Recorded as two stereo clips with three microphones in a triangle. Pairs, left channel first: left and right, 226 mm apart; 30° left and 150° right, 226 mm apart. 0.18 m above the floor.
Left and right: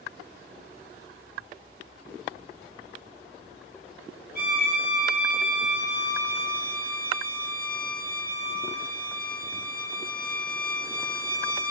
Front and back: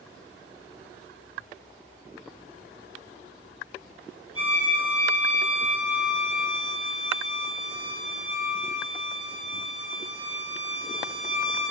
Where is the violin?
135° right, 3.5 m.